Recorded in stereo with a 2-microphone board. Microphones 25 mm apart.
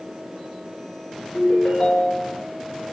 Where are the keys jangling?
No keys jangling in this recording.